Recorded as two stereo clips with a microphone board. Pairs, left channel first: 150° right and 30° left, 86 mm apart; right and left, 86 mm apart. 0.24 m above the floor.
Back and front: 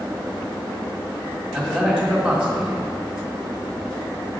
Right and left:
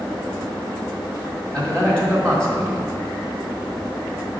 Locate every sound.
1.5 s a man speaking: 30° right, 1.5 m